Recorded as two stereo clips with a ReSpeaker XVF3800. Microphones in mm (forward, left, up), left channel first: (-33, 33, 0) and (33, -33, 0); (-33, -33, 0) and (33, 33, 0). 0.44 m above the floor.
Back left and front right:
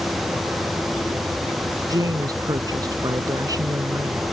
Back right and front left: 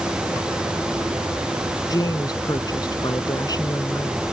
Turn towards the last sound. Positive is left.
turn(degrees=-90)